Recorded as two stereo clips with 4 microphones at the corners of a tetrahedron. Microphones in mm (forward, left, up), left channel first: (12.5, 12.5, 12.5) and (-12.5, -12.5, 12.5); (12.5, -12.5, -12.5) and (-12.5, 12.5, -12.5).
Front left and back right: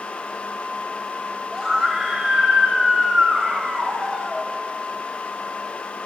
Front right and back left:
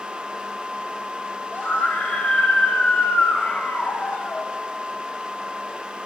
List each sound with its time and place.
1.5 s a scream: 50° right, 4 m